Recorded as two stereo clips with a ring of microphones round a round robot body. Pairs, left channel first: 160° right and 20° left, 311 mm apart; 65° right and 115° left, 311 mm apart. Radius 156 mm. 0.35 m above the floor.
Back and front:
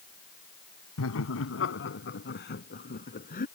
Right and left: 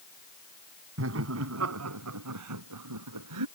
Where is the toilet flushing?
I don't hear a toilet flushing.